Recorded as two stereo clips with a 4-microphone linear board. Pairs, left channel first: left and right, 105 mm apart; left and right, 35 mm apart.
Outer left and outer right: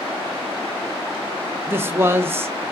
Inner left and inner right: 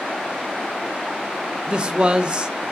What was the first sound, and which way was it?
A man speaking, 20° right (ahead or behind).